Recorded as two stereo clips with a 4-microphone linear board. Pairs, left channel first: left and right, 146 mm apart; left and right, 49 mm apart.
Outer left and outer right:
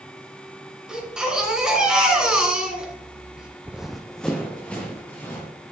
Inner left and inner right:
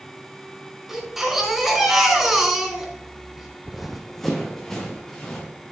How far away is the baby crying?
About 2.5 m.